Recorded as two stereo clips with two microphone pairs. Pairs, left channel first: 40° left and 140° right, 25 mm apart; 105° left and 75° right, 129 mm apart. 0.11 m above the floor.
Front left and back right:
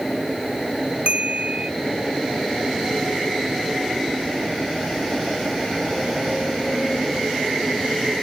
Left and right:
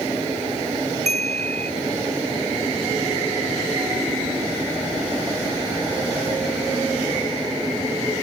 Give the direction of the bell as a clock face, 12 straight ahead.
3 o'clock.